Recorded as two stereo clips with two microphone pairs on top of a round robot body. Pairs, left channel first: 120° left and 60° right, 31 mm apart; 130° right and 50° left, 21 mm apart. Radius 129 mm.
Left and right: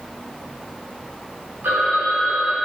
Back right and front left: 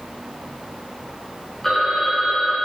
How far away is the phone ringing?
About 3 m.